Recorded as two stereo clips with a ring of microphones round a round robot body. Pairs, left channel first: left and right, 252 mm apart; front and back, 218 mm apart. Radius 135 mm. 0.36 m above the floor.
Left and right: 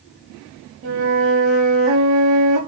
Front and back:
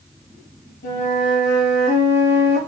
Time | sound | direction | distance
0.8 | a flute | 50° right | 0.7 m